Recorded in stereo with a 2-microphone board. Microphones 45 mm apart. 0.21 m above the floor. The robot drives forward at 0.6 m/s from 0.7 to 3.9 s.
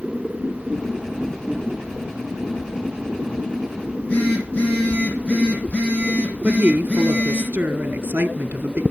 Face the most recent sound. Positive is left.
turn(degrees=-45)  # may be behind; listen again after turning